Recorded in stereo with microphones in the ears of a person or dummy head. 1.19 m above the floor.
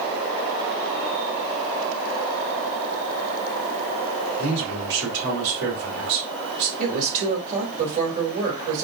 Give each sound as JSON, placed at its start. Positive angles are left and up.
{"t": 4.4, "sound": "a man speaking", "side_deg": -70, "distance_m": 2.5}
{"t": 6.8, "sound": "a woman speaking", "side_deg": -40, "distance_m": 2.0}